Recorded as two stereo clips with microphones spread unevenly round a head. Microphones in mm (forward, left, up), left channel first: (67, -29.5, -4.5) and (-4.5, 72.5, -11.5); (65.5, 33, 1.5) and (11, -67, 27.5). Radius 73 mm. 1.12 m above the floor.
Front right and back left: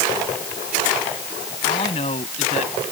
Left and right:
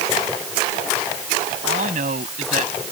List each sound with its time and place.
1.6 s a man speaking: 110° right; by 2.8 s 105° right